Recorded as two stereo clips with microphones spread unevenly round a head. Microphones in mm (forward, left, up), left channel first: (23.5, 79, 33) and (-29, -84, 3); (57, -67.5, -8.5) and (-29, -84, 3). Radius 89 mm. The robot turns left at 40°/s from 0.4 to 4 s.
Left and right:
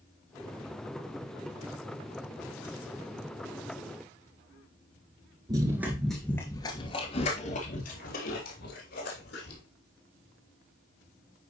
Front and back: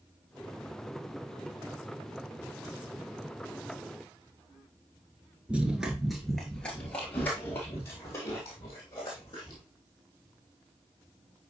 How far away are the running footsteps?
About 1.2 m.